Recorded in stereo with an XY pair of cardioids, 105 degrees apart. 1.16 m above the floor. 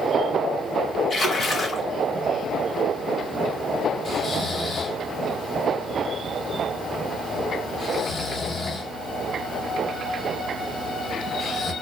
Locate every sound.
1.1 s a splash: 40° left, 1.5 m
4.0 s snoring: 35° left, 1.1 m